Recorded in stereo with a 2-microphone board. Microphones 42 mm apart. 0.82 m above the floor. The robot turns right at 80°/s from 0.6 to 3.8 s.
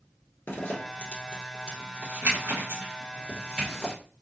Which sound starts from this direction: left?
A zipper, at 0.5 s.